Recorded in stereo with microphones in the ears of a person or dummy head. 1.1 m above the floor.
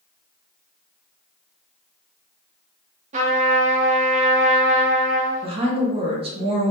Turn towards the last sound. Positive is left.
turn(degrees=-20)  # may be behind; listen again after turning